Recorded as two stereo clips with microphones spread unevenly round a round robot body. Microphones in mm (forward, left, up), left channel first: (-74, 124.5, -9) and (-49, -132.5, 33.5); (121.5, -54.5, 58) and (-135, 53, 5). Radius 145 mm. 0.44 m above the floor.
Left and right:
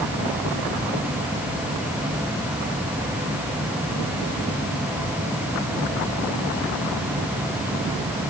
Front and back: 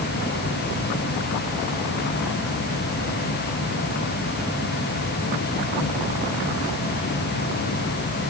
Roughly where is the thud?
No thud in this recording.